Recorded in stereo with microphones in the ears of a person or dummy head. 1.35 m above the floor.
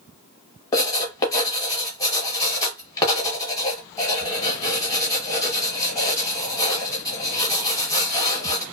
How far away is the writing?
About 1.0 m.